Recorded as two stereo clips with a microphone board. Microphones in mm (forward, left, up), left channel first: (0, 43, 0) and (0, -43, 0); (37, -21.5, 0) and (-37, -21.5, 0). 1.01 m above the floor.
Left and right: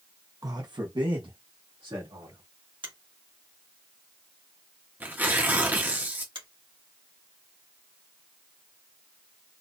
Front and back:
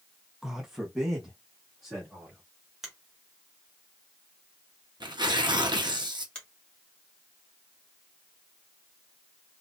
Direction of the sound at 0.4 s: 100° right.